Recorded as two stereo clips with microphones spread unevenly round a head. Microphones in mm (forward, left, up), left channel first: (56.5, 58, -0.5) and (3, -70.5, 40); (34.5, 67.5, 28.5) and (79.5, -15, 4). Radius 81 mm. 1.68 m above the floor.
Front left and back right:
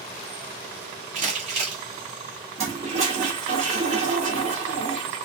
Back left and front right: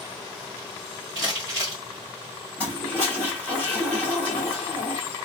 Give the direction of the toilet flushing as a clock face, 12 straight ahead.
5 o'clock.